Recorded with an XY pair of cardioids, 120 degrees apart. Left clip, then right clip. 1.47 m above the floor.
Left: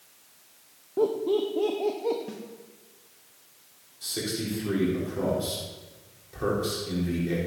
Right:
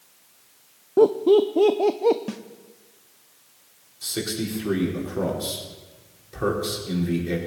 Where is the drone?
No drone in this recording.